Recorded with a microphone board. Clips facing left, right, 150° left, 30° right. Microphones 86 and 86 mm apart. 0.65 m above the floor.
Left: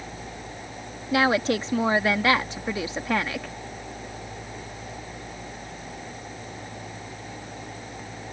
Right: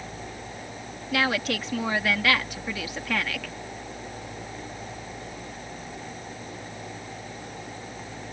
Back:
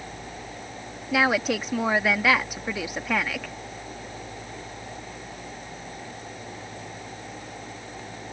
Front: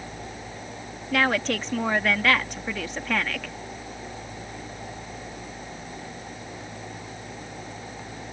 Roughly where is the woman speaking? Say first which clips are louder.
Left 5 dB, back 1 dB; left.